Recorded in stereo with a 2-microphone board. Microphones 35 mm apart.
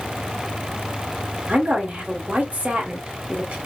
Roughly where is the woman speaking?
Right.